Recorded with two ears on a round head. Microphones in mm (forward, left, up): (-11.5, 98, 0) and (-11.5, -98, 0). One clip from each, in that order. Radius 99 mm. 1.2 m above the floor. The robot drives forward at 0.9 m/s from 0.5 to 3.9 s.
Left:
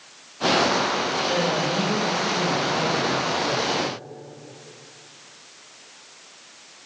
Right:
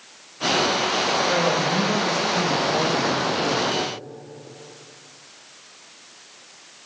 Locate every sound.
1.3 s a man speaking: 35° right (ahead or behind), 1.2 m; by 3.7 s 30° right (ahead or behind), 1.4 m